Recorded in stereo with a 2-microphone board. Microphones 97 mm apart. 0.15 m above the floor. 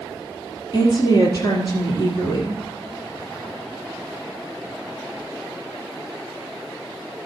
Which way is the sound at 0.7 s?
40° left (ahead or behind).